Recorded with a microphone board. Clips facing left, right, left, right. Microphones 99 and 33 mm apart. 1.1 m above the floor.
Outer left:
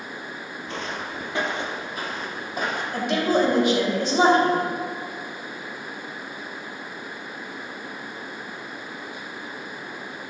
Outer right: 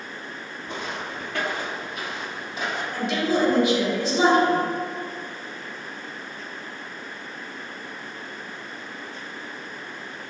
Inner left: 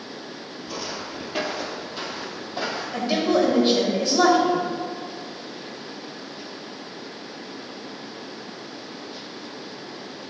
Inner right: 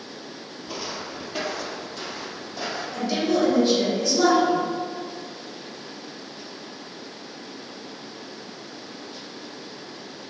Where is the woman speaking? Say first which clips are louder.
Outer left 2 dB, inner left 2 dB; 50° left (ahead or behind), 2.5 m.